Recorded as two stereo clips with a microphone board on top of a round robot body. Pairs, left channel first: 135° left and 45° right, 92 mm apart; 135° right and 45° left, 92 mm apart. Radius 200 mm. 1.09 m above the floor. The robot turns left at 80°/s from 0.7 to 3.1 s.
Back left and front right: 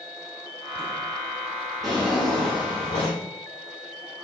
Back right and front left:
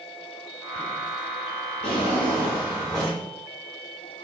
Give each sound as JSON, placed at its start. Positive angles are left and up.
{"t": 1.8, "sound": "a drawer", "azimuth_deg": -135, "distance_m": 0.6}